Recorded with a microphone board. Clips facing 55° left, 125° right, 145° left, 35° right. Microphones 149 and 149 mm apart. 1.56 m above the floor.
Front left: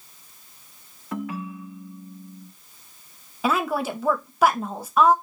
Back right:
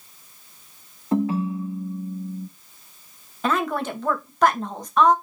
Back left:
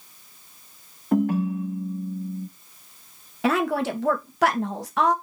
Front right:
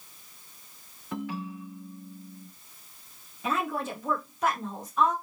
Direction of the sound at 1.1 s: Straight behind.